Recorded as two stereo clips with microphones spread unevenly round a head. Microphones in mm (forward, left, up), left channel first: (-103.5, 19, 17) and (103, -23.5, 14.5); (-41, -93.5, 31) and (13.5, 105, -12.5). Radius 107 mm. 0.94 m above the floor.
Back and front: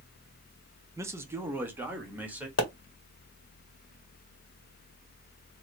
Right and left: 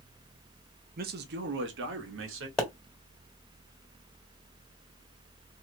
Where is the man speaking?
60° left, 0.7 m; by 2.5 s 70° left, 1.5 m.